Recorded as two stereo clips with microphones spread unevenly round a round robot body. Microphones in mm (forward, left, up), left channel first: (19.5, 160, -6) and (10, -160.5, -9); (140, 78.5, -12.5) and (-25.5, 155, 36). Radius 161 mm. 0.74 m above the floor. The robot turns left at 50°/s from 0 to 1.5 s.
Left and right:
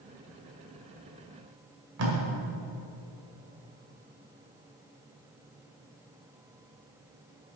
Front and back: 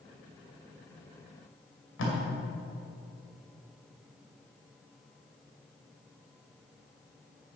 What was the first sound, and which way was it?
Tape being pulled, 45° right.